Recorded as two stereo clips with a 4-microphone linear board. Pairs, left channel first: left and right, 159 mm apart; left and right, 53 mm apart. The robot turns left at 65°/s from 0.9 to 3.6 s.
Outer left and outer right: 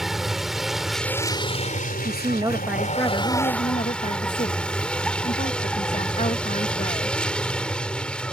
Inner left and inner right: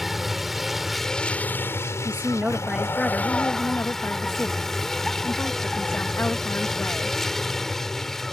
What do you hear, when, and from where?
0.0 s a vehicle: straight behind; by 8.3 s 5° left
2.0 s a woman speaking: 130° right; by 7.2 s 130° left